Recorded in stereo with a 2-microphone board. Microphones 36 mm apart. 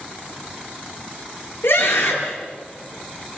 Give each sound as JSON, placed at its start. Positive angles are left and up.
{"t": 1.6, "sound": "a scream", "side_deg": 85, "distance_m": 8.5}